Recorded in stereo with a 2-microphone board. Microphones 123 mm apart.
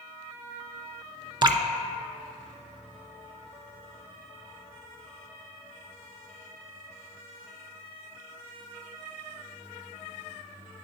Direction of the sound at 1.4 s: 35° right (ahead or behind).